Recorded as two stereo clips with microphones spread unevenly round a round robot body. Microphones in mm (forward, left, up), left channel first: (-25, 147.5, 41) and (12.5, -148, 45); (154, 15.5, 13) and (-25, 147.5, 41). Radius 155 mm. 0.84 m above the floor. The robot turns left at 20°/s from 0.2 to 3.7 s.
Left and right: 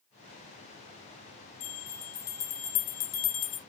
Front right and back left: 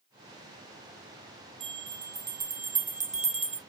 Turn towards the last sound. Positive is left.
turn(degrees=75)